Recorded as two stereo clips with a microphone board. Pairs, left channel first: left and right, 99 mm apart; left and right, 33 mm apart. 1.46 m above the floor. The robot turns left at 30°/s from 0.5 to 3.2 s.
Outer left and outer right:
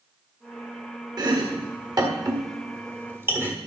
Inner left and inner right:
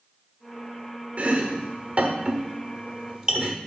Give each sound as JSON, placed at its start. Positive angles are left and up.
{"t": 1.2, "sound": "chopping", "side_deg": -45, "distance_m": 1.4}